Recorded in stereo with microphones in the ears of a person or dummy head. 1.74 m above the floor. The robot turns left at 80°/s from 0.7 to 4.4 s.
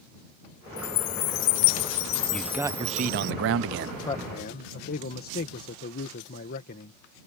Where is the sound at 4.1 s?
25° left (ahead or behind); by 7.0 s 50° left (ahead or behind).